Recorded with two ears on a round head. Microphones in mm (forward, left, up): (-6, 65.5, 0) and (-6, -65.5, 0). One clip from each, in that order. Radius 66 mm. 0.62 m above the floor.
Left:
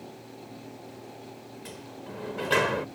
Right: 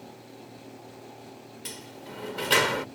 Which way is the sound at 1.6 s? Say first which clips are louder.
Right 2 dB; 70° right (ahead or behind).